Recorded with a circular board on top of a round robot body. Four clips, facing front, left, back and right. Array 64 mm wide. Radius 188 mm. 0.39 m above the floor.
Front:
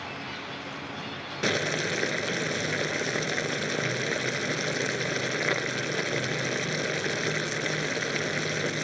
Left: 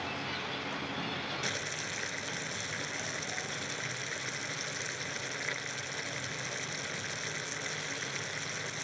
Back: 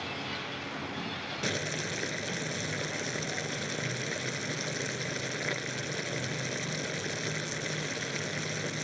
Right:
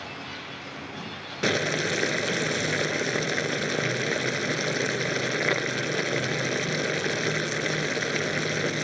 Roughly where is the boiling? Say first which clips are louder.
Right 12 dB, front 8 dB; ahead right.